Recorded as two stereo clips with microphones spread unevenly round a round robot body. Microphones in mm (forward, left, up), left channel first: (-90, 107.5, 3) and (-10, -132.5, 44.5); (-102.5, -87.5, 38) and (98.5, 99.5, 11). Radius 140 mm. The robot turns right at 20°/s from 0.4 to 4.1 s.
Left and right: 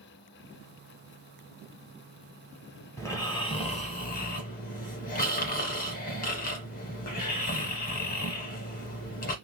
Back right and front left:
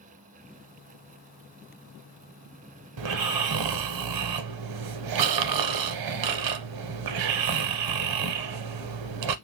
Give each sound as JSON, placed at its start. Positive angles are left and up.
{"t": 3.0, "sound": "snoring", "azimuth_deg": 20, "distance_m": 0.6}